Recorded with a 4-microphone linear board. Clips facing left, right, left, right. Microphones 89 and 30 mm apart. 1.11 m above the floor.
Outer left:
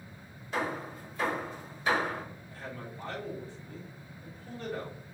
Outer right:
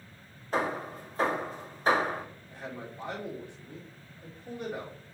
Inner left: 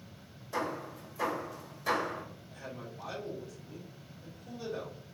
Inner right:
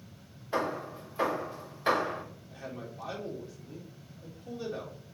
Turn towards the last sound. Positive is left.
turn(degrees=-20)  # may be behind; listen again after turning